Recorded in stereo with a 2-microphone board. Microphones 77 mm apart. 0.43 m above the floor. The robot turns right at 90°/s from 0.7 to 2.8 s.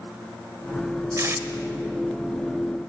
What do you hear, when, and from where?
1.2 s tape being pulled: 45° right (ahead or behind), 0.9 m; by 1.4 s 25° right (ahead or behind), 0.9 m